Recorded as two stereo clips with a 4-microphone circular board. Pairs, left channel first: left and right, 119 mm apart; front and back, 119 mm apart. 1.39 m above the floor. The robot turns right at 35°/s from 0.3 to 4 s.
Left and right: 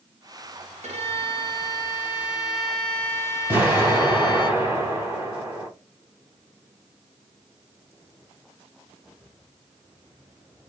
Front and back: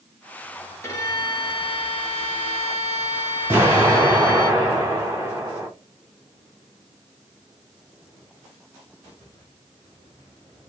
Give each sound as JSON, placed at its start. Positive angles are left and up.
{"t": 0.8, "sound": "a violin", "azimuth_deg": -65, "distance_m": 0.8}
{"t": 3.5, "sound": "an explosion", "azimuth_deg": -140, "distance_m": 1.3}